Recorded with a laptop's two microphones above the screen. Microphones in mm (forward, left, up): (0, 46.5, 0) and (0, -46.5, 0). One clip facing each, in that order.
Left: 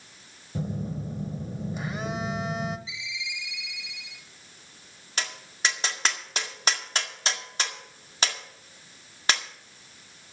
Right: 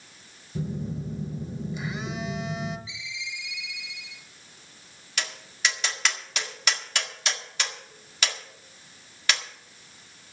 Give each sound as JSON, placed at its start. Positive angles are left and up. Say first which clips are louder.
{"t": 0.6, "sound": "a phone buzzing", "louder": "even", "side_deg": 50, "distance_m": 1.2}
{"t": 2.9, "sound": "a ringtone", "louder": "left 1 dB", "side_deg": 20, "distance_m": 4.5}
{"t": 5.2, "sound": "tapping", "louder": "even", "side_deg": 35, "distance_m": 1.7}